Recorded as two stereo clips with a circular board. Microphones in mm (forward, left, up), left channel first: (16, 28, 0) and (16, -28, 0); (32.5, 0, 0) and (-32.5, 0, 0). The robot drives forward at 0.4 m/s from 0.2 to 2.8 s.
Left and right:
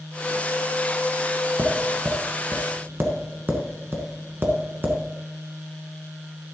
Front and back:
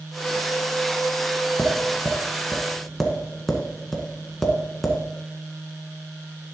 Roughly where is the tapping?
Ahead right.